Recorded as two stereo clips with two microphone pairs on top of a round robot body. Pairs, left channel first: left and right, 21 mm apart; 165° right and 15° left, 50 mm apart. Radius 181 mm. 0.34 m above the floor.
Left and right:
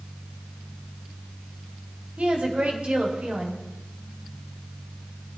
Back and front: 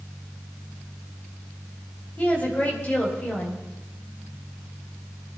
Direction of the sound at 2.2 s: 100° right.